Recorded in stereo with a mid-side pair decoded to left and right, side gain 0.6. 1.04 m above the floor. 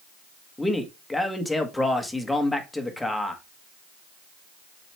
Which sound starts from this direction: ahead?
A man speaking, at 0.6 s.